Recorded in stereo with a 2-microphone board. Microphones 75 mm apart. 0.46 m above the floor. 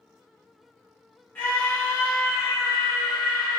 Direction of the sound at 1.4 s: 20° left (ahead or behind).